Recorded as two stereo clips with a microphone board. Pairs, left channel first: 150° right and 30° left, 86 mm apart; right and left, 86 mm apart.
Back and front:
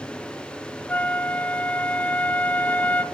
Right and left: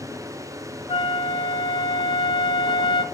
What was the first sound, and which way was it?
A flute, 80° right.